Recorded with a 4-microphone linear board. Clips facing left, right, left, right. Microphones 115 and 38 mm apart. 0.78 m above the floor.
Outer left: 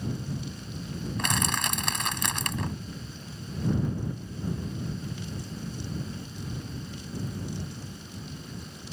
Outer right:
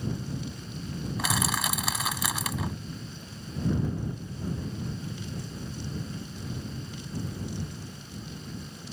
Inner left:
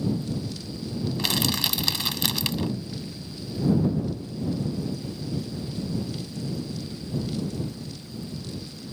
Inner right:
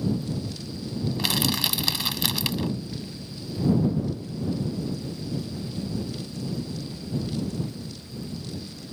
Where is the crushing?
5° right (ahead or behind).